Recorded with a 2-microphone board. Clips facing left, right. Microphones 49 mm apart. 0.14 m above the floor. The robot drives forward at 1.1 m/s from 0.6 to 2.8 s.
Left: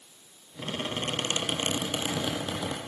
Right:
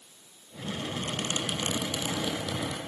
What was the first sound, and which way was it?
A squeak, 50° left (ahead or behind).